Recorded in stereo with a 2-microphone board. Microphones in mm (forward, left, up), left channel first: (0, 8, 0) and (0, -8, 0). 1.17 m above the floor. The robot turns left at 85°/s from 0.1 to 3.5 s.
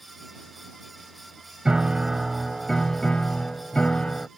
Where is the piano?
110° right; by 4.3 s 90° left.